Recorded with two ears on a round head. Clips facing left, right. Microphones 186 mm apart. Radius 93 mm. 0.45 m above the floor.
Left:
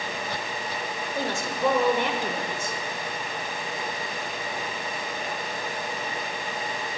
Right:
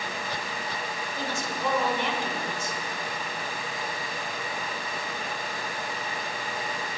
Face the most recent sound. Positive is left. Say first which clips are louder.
# left 5 dB
turn(degrees=45)  # may be behind; listen again after turning